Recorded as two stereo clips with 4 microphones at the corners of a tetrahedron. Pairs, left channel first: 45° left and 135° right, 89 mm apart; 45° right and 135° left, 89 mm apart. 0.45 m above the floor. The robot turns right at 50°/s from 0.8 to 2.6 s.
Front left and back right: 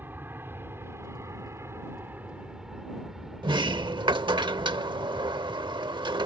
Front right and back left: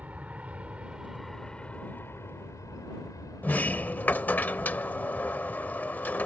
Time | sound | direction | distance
0.0 | an aircraft | 170° right | ?
3.4 | a sliding door | 115° right | ?